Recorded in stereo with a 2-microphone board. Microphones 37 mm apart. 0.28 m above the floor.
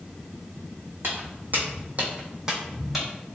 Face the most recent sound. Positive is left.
turn(degrees=-5)  # may be behind; listen again after turning